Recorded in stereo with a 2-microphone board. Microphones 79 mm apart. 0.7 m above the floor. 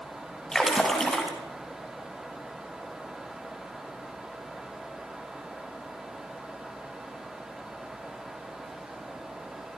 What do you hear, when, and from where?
0.5 s a splash: 5° left (ahead or behind), 4.5 m